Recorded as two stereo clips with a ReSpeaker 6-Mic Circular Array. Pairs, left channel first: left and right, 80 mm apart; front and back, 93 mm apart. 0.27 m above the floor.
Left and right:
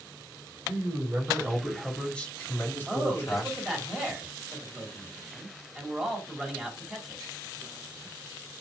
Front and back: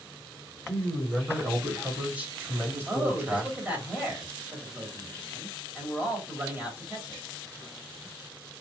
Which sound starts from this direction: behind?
A man speaking, at 2.9 s.